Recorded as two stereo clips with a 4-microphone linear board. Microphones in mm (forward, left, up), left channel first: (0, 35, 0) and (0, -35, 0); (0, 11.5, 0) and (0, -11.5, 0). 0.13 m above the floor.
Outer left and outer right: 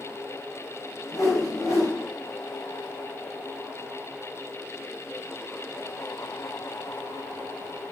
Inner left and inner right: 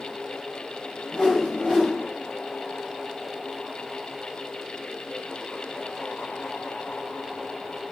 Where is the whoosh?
50° left (ahead or behind), 1.1 m.